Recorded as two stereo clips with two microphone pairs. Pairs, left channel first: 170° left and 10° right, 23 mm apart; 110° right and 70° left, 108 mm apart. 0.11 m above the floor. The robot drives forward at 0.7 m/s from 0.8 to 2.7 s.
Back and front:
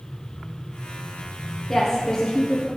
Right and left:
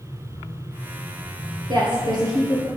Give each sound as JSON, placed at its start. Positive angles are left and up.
{"t": 1.7, "sound": "a woman speaking", "azimuth_deg": 95, "distance_m": 2.5}